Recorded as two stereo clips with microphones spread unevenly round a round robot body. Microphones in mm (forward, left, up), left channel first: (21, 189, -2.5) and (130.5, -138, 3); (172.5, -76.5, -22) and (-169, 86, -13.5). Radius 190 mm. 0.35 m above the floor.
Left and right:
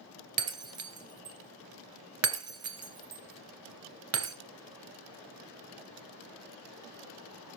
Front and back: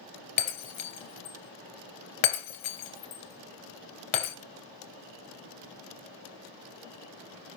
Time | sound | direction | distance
0.4 | breaking glass | 25° right | 2.5 m